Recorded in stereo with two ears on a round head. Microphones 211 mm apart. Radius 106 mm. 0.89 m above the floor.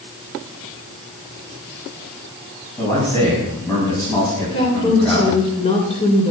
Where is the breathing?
No breathing in this recording.